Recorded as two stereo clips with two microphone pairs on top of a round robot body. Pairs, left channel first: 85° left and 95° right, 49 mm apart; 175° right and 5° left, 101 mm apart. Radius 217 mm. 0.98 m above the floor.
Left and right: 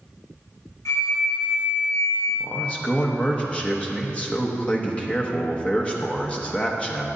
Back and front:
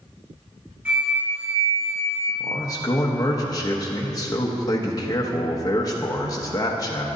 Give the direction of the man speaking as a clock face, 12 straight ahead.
7 o'clock.